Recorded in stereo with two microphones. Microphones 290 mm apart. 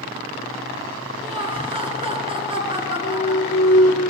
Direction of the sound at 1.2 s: 20° right (ahead or behind).